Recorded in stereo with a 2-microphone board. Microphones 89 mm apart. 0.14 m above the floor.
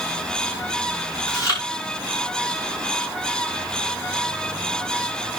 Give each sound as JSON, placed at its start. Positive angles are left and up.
{"t": 1.3, "sound": "chewing", "side_deg": 45, "distance_m": 9.0}